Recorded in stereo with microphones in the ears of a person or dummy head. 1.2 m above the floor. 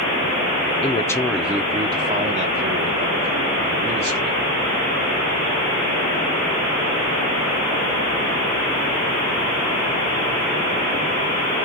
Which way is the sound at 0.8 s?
25° left (ahead or behind).